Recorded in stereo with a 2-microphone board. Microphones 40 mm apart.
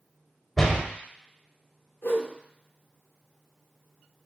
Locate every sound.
0.6 s a door slam: 10° left (ahead or behind), 0.7 m
2.0 s a whoosh: 80° left, 1.0 m